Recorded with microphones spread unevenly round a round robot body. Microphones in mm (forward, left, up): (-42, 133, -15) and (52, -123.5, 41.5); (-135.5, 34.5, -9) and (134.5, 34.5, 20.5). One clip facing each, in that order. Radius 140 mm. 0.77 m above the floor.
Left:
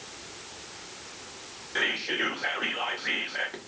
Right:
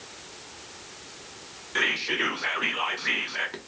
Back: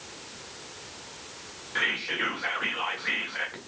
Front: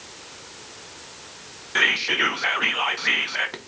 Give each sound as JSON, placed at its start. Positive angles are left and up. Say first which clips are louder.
{"t": 1.8, "sound": "whispering", "louder": "right 1 dB, front 6 dB", "azimuth_deg": 10, "distance_m": 0.8}